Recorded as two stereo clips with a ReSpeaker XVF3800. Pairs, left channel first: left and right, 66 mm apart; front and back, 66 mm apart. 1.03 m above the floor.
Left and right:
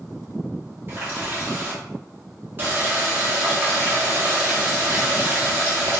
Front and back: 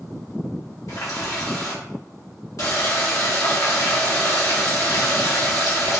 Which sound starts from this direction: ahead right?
A running tap, at 0.9 s.